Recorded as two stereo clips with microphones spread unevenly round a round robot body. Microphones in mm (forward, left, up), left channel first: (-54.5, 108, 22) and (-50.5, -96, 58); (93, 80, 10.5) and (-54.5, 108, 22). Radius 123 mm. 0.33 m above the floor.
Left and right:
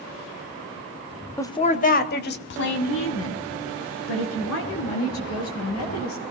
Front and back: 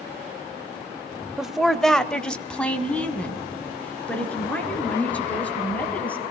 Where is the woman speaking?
75° left, 0.9 m; by 6.2 s 70° left, 6.5 m.